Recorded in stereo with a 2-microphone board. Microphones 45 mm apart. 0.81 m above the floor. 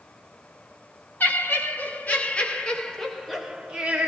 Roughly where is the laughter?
Left.